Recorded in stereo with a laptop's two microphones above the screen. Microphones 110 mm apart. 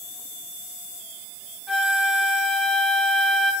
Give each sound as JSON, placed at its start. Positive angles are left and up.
{"t": 1.7, "sound": "a flute", "side_deg": 5, "distance_m": 2.0}